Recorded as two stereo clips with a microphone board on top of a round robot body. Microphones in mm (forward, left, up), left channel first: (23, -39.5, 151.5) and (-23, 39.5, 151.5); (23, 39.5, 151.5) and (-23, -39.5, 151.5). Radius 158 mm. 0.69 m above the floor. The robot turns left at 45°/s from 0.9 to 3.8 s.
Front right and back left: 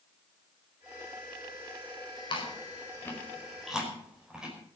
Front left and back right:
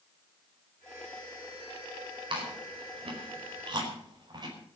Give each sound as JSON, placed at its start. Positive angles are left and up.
{"t": 2.3, "sound": "chewing", "azimuth_deg": -90, "distance_m": 5.0}